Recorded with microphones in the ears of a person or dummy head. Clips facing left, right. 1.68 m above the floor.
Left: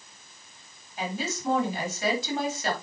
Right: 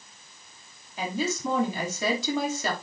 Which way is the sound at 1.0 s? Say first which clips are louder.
Right 3 dB; 80° right.